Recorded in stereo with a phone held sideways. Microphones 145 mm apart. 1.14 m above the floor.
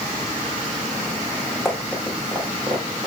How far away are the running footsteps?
About 4 m.